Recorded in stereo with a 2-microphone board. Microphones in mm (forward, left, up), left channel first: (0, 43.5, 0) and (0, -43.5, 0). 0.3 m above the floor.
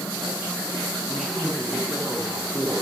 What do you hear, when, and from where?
1.1 s a man speaking: 5° left (ahead or behind), 7 m; by 2.8 s 10° left (ahead or behind), 5.5 m